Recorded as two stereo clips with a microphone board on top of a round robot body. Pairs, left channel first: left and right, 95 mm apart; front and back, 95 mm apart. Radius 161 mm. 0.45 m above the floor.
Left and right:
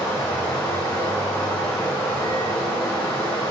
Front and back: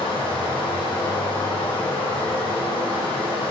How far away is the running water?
About 1.6 m.